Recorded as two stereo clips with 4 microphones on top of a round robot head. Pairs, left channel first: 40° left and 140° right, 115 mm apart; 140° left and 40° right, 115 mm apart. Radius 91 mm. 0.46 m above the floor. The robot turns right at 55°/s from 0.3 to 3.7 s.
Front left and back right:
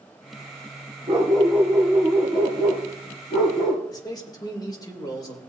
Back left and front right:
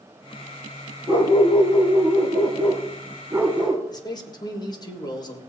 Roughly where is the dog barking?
Right.